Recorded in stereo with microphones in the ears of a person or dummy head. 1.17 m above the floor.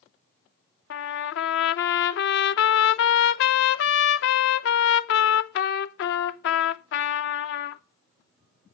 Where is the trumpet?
70° left (ahead or behind), 0.8 m.